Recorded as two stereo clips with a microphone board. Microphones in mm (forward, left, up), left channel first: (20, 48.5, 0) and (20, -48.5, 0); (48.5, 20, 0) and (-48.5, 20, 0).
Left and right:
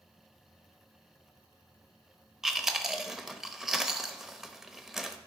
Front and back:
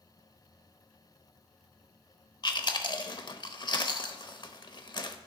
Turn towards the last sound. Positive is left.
turn(degrees=-5)